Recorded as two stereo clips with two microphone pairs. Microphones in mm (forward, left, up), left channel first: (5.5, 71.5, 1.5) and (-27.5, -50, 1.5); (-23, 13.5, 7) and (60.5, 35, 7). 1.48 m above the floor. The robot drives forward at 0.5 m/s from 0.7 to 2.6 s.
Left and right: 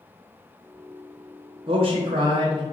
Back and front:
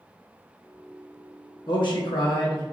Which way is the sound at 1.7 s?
140° right.